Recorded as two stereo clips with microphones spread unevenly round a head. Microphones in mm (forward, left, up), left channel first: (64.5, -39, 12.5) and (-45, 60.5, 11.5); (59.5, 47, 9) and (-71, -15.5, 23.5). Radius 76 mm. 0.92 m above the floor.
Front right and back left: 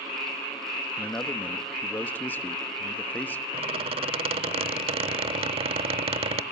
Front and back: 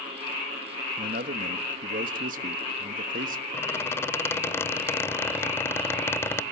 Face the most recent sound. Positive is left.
turn(degrees=100)